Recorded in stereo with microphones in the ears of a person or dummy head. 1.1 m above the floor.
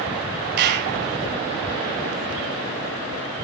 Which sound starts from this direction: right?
A clap, at 0.6 s.